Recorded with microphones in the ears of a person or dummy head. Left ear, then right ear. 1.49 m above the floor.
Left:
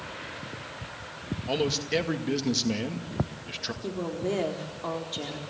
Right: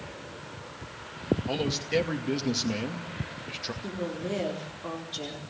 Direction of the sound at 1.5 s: 5° left (ahead or behind).